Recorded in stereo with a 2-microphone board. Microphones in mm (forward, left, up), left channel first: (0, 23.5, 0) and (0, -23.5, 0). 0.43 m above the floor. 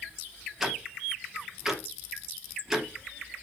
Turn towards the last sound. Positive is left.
turn(degrees=-5)  # may be behind; listen again after turning